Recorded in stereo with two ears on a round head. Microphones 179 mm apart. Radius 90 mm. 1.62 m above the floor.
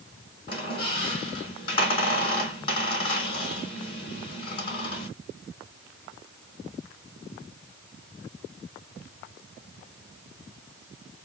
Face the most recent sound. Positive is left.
turn(degrees=25)  # may be behind; listen again after turning